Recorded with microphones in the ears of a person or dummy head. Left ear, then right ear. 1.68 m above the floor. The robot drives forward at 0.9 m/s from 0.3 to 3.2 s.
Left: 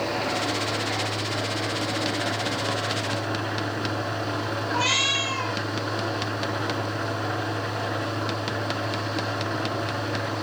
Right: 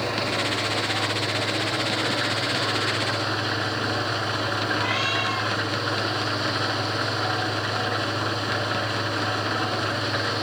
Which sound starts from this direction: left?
A cat meowing, at 4.7 s.